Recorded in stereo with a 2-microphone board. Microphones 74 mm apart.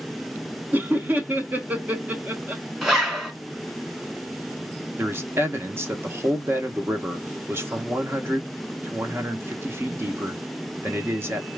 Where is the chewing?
I don't hear chewing.